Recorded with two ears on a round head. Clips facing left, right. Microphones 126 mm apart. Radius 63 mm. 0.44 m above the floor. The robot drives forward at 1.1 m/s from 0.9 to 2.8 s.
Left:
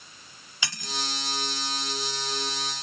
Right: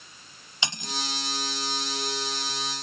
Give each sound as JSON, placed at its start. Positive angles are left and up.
{"t": 0.6, "sound": "cutlery clinking", "side_deg": -20}